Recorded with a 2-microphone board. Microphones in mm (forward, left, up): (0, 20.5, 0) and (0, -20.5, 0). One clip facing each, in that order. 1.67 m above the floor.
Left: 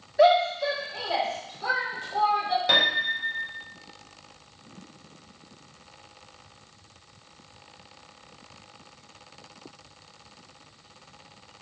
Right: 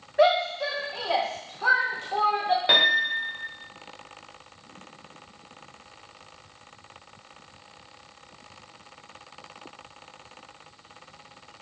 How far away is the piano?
About 1.2 m.